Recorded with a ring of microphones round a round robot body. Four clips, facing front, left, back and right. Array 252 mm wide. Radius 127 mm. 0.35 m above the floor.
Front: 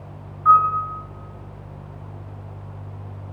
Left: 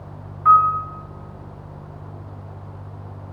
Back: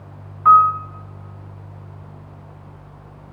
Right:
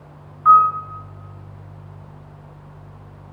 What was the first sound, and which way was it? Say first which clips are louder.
A piano: right 2 dB, back 3 dB; 170° left.